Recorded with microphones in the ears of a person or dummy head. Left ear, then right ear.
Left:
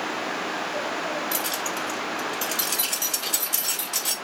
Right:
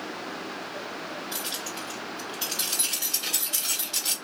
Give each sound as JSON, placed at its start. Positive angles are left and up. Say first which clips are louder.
{"t": 1.3, "sound": "keys jangling", "louder": "left 6 dB", "side_deg": 40, "distance_m": 1.3}